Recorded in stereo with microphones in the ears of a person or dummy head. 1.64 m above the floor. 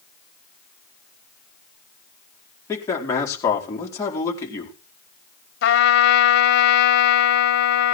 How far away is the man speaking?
About 4.5 m.